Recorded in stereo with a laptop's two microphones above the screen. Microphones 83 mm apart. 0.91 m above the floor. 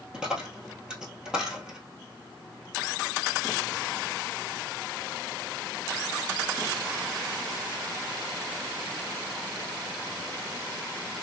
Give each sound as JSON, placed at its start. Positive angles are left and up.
{"t": 0.1, "sound": "a dropped coin", "side_deg": -10, "distance_m": 1.2}